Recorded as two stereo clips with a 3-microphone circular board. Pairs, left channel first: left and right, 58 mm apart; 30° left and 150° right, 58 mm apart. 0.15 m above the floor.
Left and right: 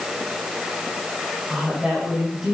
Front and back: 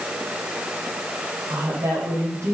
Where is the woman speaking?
Straight behind, 6 m.